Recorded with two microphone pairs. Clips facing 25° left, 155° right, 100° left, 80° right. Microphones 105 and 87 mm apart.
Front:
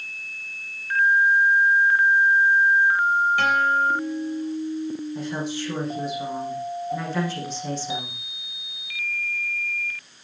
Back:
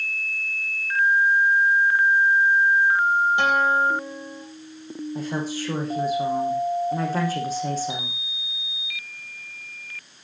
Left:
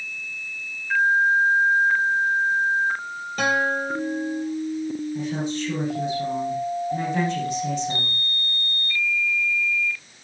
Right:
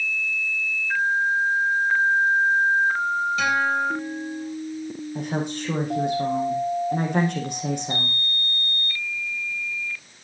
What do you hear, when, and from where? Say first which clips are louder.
3.4 s a guitar: back 1 dB, left 4 dB; 140° left, 4 m
5.2 s a woman speaking: back 1 dB, left 1 dB; 110° right, 7 m